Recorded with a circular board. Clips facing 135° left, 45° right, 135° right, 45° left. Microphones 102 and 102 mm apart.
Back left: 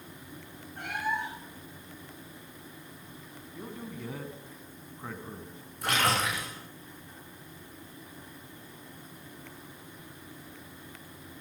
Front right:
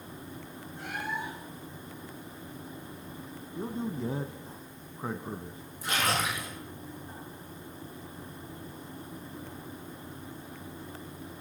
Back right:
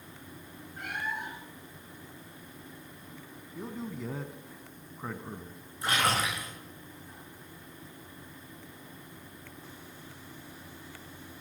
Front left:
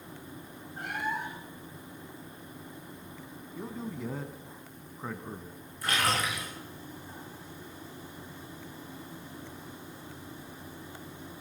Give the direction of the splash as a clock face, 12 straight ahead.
7 o'clock.